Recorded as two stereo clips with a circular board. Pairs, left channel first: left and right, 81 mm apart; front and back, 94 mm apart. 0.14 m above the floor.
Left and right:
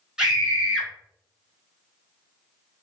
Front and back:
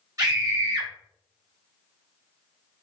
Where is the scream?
165° right, 1.3 m.